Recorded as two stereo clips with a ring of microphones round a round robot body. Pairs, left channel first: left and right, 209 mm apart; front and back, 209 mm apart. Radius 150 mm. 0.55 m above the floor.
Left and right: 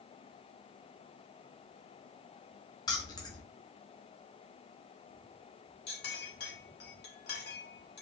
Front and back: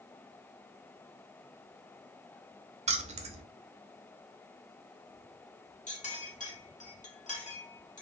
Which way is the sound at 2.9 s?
150° left.